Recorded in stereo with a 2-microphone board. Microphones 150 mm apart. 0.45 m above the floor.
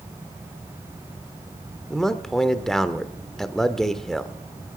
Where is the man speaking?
5° left (ahead or behind), 0.9 m.